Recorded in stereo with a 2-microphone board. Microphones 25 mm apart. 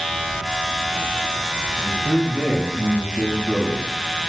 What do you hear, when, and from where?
1.8 s a man speaking: 50° right (ahead or behind), 5 m